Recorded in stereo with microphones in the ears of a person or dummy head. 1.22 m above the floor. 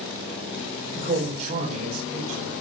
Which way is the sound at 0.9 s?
40° right (ahead or behind).